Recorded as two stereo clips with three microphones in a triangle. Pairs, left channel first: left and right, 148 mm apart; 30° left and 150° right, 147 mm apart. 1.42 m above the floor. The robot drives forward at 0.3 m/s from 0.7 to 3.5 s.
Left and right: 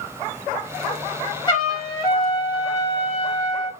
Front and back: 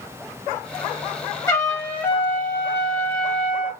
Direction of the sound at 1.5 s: 70° left.